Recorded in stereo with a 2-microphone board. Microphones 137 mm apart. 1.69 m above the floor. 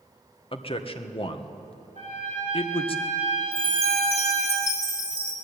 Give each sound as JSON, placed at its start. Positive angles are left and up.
{"t": 0.5, "sound": "a man speaking", "side_deg": 40, "distance_m": 1.7}
{"t": 1.9, "sound": "a trumpet", "side_deg": 65, "distance_m": 7.0}
{"t": 3.5, "sound": "a chime", "side_deg": 50, "distance_m": 3.5}